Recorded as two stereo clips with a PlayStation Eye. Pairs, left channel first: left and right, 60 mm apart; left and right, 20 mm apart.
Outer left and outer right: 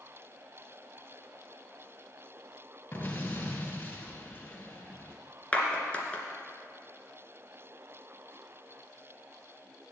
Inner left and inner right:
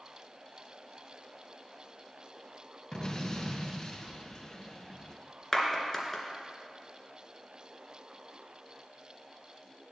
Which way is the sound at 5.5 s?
20° left (ahead or behind).